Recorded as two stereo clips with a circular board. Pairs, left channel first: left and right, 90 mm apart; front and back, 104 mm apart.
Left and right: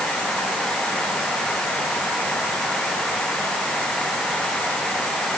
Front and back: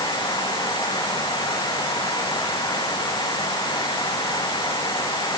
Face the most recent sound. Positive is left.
No sound to turn to.